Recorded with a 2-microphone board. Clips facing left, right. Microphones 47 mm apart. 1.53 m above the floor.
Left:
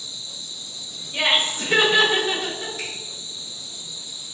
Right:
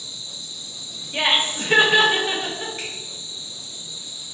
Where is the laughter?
35° right (ahead or behind), 0.8 m.